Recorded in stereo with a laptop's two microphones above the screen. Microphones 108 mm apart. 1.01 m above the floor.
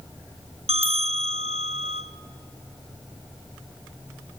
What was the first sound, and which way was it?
A bell, 80° right.